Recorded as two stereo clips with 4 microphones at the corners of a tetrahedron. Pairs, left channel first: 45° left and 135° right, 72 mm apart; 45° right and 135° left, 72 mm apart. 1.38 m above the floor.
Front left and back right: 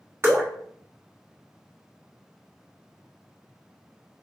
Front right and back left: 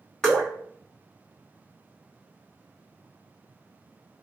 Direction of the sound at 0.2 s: 120° right.